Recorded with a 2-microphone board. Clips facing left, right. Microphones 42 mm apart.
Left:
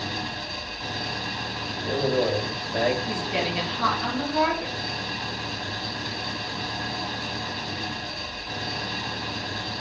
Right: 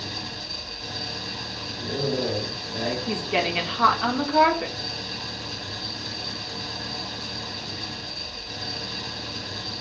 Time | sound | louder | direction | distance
0.0 | an engine running | left 4 dB | 40° left (ahead or behind) | 0.9 m
1.8 | a man speaking | left 3 dB | 50° left (ahead or behind) | 4.5 m
3.1 | a woman speaking | right 2 dB | 35° right (ahead or behind) | 2 m